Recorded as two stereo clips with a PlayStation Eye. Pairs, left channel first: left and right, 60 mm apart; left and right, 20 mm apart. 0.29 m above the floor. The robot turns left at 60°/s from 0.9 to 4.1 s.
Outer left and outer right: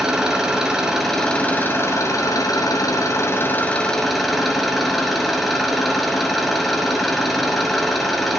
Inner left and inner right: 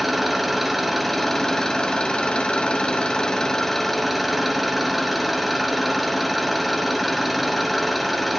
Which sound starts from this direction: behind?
An engine running, at 0.0 s.